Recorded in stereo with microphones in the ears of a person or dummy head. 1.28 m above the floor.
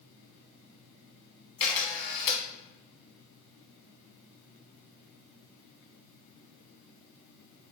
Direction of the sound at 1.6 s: 10° left (ahead or behind).